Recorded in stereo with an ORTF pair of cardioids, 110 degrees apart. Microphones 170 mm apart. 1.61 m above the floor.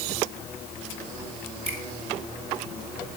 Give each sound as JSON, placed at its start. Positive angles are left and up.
{"t": 1.6, "sound": "a finger snap", "azimuth_deg": -40, "distance_m": 4.5}